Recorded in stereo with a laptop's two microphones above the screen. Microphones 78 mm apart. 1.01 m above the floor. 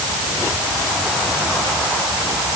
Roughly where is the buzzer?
I don't hear a buzzer.